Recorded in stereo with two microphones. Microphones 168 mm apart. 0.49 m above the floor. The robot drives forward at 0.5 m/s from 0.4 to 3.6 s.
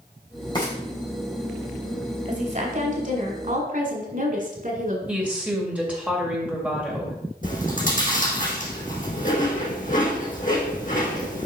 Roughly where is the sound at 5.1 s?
Centre.